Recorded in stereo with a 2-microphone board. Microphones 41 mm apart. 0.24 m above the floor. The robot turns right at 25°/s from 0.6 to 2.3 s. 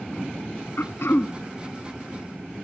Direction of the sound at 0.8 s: 70° left (ahead or behind).